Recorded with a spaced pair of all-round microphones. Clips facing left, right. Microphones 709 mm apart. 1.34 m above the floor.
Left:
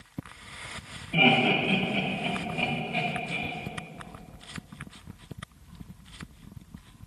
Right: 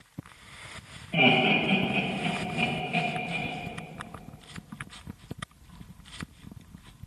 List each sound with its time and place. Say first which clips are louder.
1.1 s laughter: even; 5° right (ahead or behind), 1.6 m; by 3.5 s 70° right (ahead or behind), 1.7 m